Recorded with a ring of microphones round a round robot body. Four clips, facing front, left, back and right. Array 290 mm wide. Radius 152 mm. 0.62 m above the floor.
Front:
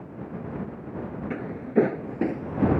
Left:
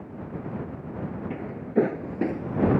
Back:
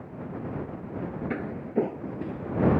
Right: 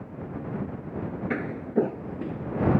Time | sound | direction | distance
1.3 | footsteps | 100° right | ?